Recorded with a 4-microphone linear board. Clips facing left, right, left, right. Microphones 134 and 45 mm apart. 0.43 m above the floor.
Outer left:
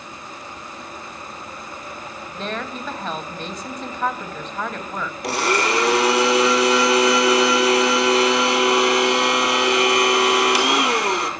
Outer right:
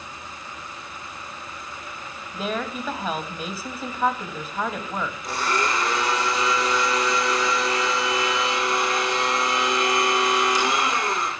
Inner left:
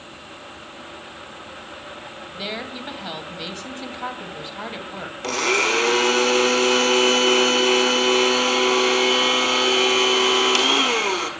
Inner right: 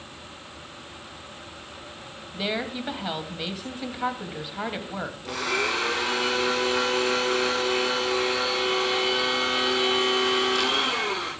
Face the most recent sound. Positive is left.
turn(degrees=75)  # may be behind; listen again after turning